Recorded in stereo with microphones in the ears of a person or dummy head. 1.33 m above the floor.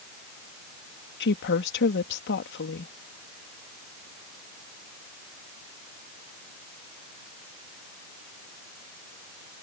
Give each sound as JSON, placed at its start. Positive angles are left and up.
{"t": 1.2, "sound": "a woman speaking", "side_deg": 55}